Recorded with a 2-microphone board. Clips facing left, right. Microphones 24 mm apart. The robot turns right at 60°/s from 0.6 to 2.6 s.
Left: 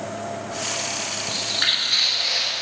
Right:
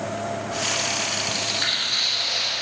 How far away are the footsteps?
About 1.7 m.